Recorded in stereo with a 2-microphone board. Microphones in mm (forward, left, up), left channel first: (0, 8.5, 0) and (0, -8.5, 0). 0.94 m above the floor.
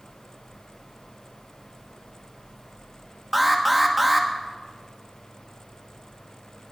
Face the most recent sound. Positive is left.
turn(degrees=-10)  # may be behind; listen again after turning